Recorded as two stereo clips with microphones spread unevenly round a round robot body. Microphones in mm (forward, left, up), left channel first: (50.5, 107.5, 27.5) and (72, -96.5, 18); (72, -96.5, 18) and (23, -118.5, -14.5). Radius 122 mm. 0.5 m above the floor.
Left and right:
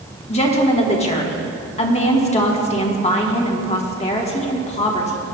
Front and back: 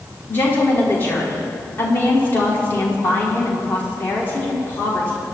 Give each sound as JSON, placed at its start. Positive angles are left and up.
{"t": 0.3, "sound": "a woman speaking", "azimuth_deg": 115, "distance_m": 1.2}